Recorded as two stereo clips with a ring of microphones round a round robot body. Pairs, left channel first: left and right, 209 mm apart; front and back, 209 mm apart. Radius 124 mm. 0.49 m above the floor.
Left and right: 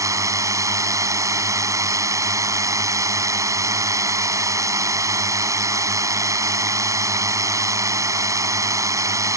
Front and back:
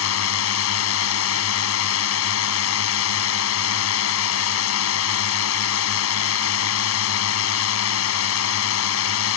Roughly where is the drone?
Ahead.